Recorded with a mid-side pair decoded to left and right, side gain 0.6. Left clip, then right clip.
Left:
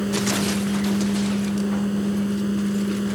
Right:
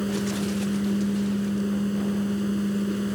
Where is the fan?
15° left.